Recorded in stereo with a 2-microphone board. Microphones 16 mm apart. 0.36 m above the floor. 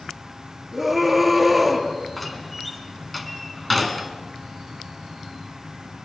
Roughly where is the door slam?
Centre.